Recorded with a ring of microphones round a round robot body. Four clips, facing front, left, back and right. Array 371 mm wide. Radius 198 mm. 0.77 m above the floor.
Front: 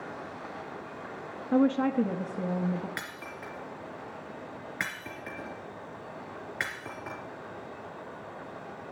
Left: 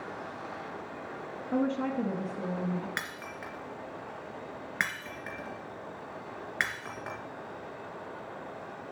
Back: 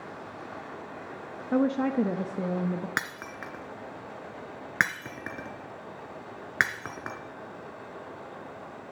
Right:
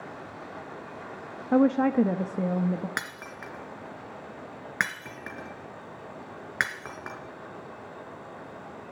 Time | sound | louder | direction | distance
1.5 | a woman speaking | right 8 dB, front 1 dB | 95° right | 0.7 m
3.0 | breaking glass | right 2 dB, back 5 dB | 160° right | 2.5 m